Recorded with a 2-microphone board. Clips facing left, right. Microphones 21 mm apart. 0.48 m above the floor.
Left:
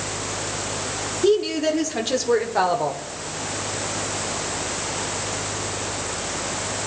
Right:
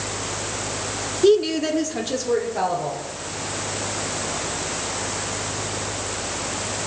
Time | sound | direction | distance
1.2 | a woman speaking | 20° right (ahead or behind) | 0.9 m